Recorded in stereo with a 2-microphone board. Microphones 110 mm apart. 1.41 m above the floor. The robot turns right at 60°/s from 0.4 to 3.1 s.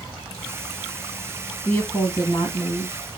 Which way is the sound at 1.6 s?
Straight ahead.